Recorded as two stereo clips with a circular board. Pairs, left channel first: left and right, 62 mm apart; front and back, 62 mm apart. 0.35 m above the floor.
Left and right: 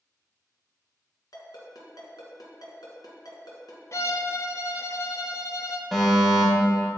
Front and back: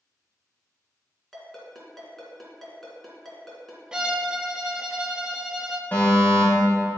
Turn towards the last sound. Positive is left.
turn(degrees=-5)